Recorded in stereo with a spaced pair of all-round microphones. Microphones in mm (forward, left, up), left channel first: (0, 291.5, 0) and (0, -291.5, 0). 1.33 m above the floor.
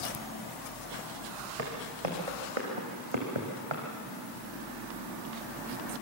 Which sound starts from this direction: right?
Footsteps, at 1.6 s.